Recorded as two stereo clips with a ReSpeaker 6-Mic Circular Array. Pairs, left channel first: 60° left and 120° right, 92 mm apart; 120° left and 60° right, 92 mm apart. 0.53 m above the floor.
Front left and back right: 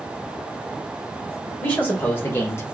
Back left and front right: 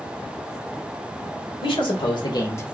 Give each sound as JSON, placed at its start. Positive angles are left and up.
{"t": 1.6, "sound": "a man speaking", "azimuth_deg": 130, "distance_m": 1.8}